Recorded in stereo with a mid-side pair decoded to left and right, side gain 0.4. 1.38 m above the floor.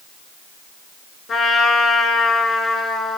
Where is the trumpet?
50° left, 4 m.